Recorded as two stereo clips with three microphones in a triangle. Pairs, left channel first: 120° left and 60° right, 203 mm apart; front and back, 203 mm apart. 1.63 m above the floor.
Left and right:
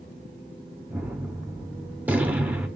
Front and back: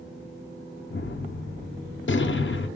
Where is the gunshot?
25° left, 0.9 m.